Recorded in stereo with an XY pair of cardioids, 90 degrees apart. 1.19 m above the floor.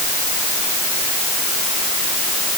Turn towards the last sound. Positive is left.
No sound to turn to.